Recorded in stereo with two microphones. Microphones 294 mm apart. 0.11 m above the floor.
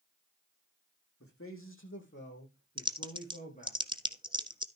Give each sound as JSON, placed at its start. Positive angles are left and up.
{"t": 1.2, "sound": "a man speaking", "side_deg": 50, "distance_m": 5.0}
{"t": 2.8, "sound": "typing on a keyboard", "side_deg": -15, "distance_m": 0.6}